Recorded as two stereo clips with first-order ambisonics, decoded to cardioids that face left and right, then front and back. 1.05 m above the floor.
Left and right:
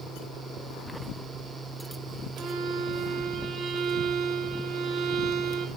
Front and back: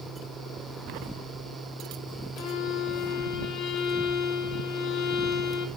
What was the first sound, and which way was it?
A violin, 35° right.